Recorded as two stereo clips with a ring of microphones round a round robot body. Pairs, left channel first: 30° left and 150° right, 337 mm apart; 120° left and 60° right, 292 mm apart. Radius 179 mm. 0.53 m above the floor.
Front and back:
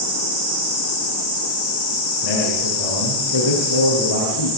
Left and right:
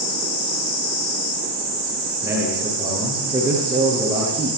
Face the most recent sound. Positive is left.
turn(degrees=20)